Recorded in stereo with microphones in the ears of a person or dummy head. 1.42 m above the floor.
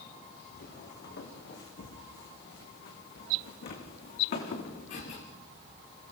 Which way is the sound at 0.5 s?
65° left (ahead or behind).